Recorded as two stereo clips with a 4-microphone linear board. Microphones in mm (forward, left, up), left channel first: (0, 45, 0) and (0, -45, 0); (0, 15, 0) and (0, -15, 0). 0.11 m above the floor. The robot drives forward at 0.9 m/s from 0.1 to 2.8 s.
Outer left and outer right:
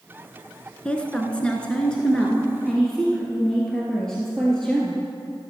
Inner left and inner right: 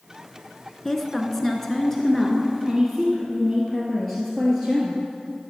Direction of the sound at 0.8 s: 10° left (ahead or behind).